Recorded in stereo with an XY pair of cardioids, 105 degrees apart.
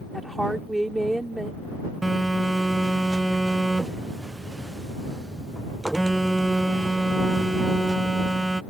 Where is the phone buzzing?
15° right.